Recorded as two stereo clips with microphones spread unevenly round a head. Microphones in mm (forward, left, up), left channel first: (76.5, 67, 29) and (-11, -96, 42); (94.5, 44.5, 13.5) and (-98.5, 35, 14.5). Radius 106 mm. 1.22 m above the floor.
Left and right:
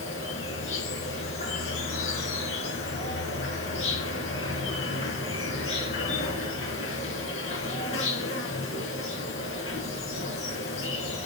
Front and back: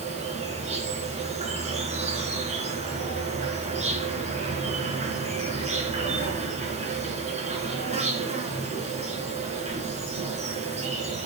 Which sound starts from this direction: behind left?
An insect, at 0.0 s.